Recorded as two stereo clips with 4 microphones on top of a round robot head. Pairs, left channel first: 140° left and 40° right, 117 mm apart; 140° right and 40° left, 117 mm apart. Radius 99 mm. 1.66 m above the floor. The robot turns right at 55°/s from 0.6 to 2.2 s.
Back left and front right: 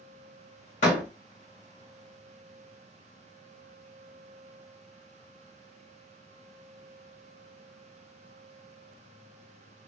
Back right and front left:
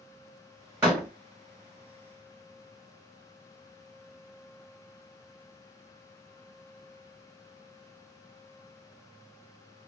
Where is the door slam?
115° left, 1.3 m; by 1.1 s 130° left, 1.3 m.